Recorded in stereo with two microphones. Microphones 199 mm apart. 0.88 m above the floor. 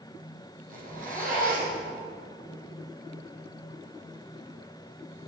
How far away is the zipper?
About 5.5 m.